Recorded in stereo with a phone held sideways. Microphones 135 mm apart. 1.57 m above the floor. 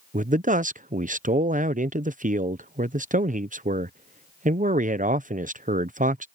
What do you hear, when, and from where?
0.1 s a man speaking: 75° right (ahead or behind)